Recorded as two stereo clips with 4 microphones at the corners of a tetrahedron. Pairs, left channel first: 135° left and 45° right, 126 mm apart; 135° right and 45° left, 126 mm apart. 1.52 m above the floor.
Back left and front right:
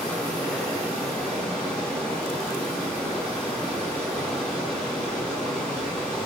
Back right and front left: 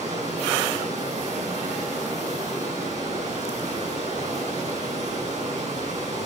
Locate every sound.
0.0 s running water: 55° left, 6 m